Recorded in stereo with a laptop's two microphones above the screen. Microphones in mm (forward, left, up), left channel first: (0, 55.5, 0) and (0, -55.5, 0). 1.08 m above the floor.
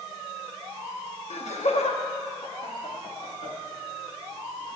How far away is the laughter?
About 1.2 m.